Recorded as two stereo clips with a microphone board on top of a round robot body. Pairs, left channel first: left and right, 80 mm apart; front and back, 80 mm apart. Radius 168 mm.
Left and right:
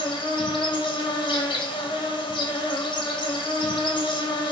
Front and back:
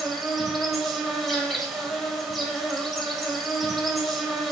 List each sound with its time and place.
0.0 s an insect: 90° left, 0.9 m